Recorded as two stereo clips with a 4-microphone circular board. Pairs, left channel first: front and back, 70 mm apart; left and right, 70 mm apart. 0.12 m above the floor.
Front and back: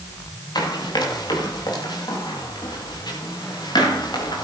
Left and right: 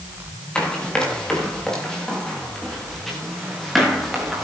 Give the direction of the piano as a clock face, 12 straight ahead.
I don't hear a piano.